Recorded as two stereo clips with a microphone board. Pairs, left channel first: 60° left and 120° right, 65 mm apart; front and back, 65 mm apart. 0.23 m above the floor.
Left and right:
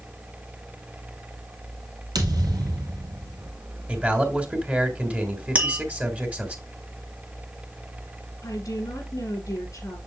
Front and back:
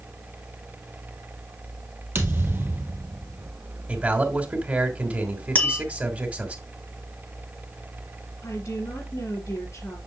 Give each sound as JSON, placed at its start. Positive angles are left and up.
{"t": 2.1, "sound": "a thud", "azimuth_deg": -120, "distance_m": 1.8}
{"t": 3.9, "sound": "a man speaking", "azimuth_deg": -145, "distance_m": 1.6}
{"t": 5.5, "sound": "tapping", "azimuth_deg": -55, "distance_m": 1.5}
{"t": 8.4, "sound": "a woman speaking", "azimuth_deg": 30, "distance_m": 4.0}